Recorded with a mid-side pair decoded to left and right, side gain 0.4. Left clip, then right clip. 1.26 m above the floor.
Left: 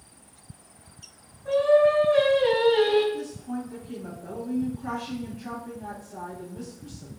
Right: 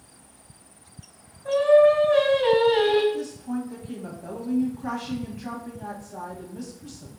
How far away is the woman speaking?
About 1.3 m.